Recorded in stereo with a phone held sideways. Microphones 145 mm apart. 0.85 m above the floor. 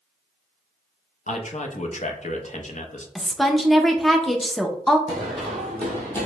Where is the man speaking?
55° left (ahead or behind), 0.6 m.